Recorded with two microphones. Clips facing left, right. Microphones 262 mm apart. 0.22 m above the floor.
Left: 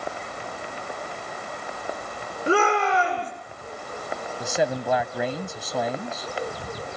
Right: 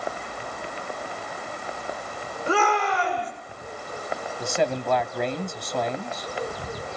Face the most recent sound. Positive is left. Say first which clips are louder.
# even
turn(degrees=5)  # may be behind; listen again after turning